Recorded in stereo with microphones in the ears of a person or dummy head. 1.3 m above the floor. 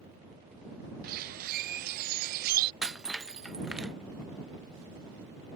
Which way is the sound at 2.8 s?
5° right (ahead or behind).